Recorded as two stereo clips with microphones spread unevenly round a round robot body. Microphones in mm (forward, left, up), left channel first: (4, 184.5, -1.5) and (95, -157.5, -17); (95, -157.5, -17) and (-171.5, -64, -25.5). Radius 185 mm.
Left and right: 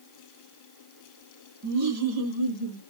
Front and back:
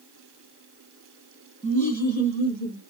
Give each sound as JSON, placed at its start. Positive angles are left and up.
{"t": 1.6, "sound": "laughter", "azimuth_deg": -80, "distance_m": 2.5}